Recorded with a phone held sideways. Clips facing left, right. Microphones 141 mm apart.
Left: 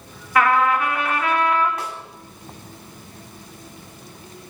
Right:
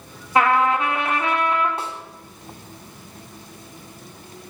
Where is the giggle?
No giggle in this recording.